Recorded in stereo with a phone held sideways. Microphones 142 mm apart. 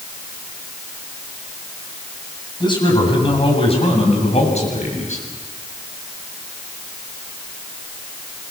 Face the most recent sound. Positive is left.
turn(degrees=55)  # may be behind; listen again after turning